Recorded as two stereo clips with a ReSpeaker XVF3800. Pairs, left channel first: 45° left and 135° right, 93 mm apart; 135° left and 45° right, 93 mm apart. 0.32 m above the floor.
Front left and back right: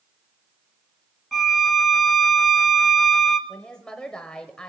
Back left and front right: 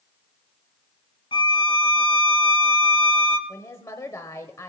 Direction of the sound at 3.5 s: 120° left.